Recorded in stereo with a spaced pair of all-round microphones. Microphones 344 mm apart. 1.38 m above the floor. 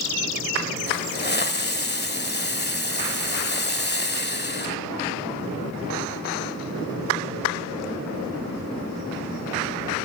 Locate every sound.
0.9 s a hiss: 30° left (ahead or behind), 1.3 m